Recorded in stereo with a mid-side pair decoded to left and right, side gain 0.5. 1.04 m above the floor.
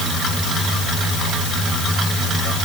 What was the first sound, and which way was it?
Only background noise.